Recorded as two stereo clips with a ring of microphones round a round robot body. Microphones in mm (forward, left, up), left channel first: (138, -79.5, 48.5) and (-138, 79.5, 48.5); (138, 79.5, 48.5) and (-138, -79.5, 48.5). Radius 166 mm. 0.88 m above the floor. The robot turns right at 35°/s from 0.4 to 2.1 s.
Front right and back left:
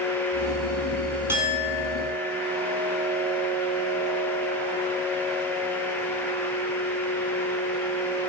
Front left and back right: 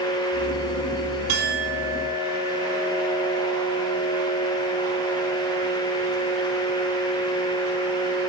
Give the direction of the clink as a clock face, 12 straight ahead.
4 o'clock.